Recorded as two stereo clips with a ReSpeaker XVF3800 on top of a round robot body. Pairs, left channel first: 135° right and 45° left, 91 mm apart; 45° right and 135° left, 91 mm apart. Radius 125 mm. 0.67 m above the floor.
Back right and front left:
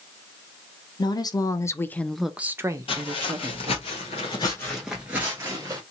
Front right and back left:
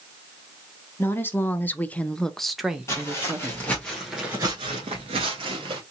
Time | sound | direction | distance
1.0 | a woman speaking | 110° right | 1.0 m
2.9 | footsteps | 110° right | 1.4 m